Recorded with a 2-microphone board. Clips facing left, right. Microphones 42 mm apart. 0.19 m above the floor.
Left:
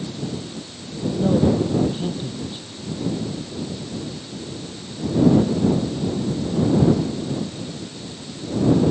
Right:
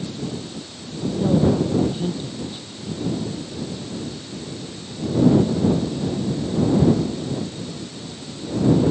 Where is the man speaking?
15° left (ahead or behind).